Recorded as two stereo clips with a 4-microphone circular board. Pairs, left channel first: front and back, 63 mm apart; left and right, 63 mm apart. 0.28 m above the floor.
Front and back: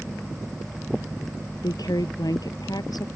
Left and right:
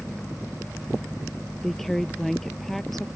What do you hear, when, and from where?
1.6 s a woman speaking: 5° left